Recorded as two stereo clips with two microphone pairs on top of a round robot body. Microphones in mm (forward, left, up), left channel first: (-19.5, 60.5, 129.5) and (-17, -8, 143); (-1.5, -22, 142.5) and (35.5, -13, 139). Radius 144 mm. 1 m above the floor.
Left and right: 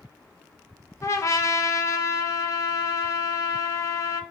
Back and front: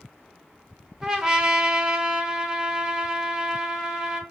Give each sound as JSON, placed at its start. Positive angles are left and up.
{"t": 1.0, "sound": "a trumpet", "azimuth_deg": 85, "distance_m": 0.8}